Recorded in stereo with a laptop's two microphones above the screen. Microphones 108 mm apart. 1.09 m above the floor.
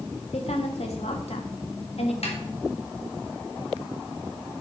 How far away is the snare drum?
About 3.5 m.